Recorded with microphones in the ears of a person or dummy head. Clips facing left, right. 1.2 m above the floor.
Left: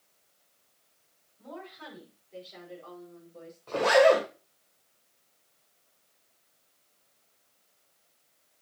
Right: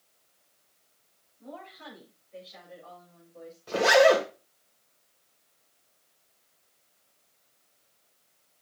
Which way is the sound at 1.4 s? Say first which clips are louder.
Left 1 dB; 65° left (ahead or behind).